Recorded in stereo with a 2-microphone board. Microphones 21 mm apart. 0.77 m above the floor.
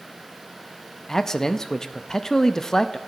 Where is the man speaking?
25° left (ahead or behind), 0.5 m.